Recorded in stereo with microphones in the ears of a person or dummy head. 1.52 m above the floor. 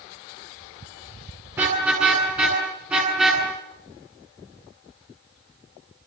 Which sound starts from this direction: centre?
A car horn, at 1.5 s.